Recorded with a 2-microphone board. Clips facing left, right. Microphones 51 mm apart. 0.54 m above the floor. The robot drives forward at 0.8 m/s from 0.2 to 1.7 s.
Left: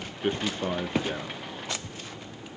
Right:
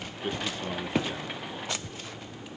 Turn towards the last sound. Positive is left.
turn(degrees=25)  # may be behind; listen again after turning